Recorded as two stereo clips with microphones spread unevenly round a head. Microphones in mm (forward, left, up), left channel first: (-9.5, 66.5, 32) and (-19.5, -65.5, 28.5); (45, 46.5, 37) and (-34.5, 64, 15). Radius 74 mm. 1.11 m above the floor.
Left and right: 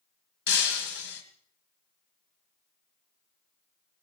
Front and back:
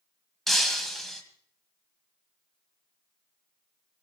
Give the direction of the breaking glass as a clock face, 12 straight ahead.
10 o'clock.